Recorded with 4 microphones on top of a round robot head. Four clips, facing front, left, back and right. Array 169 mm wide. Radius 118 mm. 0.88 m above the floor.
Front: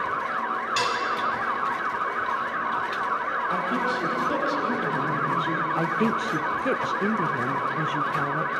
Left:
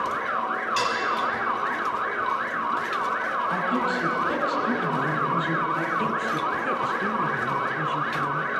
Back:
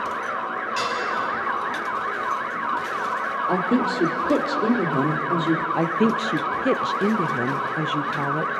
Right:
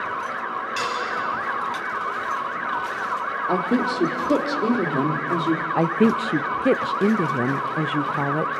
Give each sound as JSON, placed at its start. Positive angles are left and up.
{"t": 0.8, "sound": "dishes clattering", "azimuth_deg": 5, "distance_m": 4.0}
{"t": 3.5, "sound": "a woman speaking", "azimuth_deg": -130, "distance_m": 1.9}
{"t": 5.8, "sound": "a woman speaking", "azimuth_deg": -105, "distance_m": 0.6}